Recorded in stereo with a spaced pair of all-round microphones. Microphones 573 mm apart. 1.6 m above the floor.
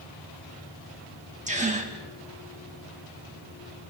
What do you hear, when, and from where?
1.5 s a gasp: 10° right (ahead or behind), 2.5 m